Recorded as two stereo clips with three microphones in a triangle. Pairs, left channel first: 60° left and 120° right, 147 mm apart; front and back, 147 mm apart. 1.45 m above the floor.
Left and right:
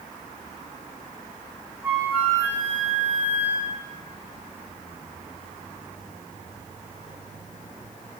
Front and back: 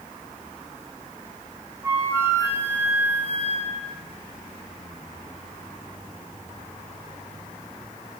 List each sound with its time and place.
1.8 s a flute: 165° right, 0.9 m